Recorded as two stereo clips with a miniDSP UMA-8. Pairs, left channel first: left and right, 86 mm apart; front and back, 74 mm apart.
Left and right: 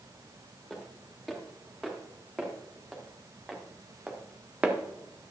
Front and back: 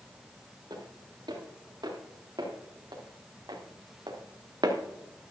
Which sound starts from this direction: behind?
Footsteps, at 0.7 s.